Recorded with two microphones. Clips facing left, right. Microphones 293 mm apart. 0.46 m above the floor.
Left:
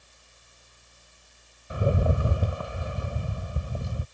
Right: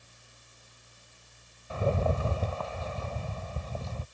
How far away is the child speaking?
No child speaking in this recording.